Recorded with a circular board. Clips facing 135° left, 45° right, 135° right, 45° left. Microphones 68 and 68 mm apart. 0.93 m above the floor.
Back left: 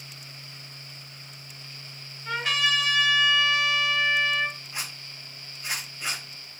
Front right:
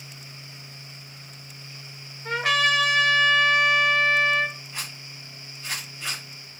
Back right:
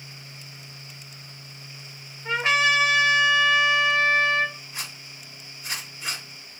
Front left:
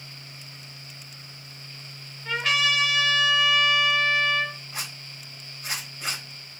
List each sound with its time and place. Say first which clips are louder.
2.2 s a trumpet: front right 4 dB, back right 3 dB; 75° right, 0.8 m
4.7 s a zipper: even, front left 1 dB; 55° left, 2 m